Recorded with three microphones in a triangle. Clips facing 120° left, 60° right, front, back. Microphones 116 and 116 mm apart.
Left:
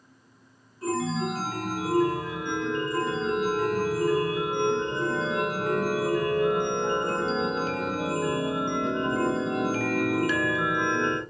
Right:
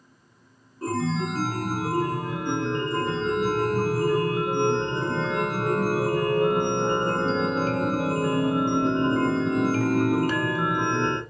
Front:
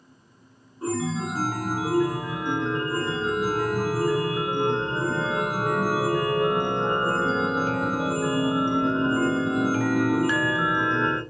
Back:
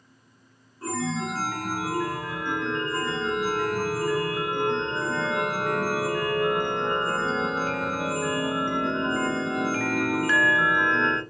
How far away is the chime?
About 0.9 m.